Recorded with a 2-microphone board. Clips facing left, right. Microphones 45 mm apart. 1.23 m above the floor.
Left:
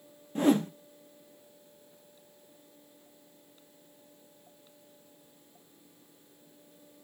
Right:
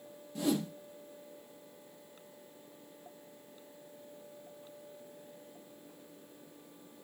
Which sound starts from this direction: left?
A whoosh, at 0.3 s.